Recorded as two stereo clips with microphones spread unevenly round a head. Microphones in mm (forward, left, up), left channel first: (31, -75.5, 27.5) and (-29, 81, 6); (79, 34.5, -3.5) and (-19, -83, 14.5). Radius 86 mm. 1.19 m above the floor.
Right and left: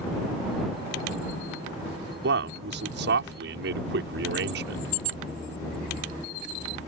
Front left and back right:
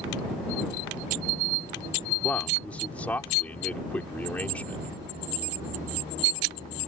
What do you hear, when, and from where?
2.2 s a man speaking: 135° left